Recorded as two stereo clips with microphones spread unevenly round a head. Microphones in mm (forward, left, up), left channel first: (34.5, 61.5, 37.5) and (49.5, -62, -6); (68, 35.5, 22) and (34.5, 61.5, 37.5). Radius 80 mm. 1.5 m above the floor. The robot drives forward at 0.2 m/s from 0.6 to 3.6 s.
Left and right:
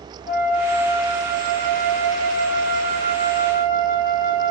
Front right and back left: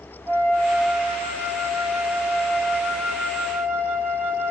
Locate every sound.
0.3 s a flute: 120° left, 5.5 m; by 4.5 s 125° left, 6 m